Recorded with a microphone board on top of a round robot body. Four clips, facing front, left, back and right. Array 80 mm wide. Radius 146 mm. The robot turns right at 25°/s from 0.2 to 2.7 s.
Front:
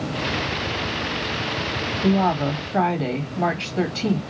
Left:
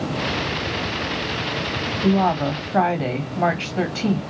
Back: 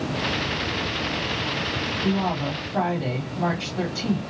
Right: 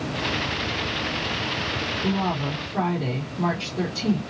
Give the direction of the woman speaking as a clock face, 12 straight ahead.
10 o'clock.